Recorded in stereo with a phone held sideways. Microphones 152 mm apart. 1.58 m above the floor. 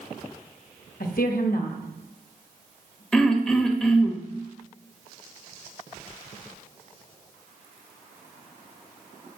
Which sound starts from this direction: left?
A woman speaking, at 1.0 s.